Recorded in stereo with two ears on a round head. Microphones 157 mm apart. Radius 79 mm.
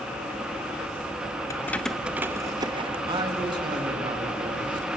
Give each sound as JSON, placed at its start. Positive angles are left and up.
{"t": 1.5, "sound": "keys jangling", "side_deg": 20, "distance_m": 0.8}
{"t": 3.0, "sound": "a man speaking", "side_deg": -30, "distance_m": 2.5}